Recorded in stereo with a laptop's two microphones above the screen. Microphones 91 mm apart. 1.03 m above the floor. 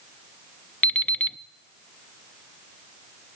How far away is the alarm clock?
About 0.6 m.